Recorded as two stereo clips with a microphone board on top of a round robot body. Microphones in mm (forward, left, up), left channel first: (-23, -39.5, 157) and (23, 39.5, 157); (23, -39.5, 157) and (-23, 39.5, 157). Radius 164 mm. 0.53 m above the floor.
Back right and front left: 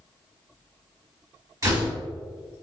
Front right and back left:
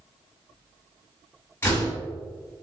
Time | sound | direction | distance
1.6 | a door slam | 5° left | 1.7 m